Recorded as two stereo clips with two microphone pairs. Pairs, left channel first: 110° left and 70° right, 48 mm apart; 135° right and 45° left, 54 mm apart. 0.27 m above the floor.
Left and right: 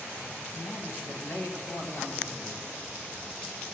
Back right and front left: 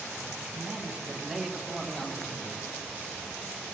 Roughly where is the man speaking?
Behind left.